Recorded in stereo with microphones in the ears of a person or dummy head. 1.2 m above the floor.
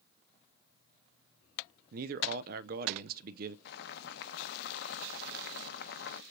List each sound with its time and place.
1.9 s a man speaking: 50° right (ahead or behind), 0.6 m
3.6 s boiling: 60° left (ahead or behind), 0.7 m